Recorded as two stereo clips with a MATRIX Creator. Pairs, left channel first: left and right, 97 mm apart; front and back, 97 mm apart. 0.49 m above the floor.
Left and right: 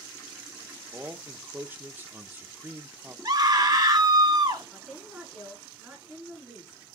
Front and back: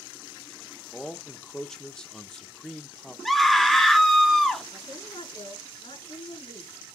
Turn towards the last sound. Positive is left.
turn(degrees=-5)